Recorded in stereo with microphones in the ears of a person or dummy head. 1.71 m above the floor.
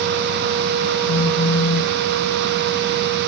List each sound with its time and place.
1.1 s a phone buzzing: 65° left (ahead or behind)